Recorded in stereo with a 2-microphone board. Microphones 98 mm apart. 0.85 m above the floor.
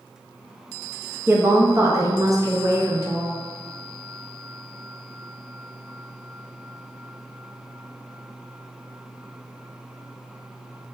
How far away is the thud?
No thud in this recording.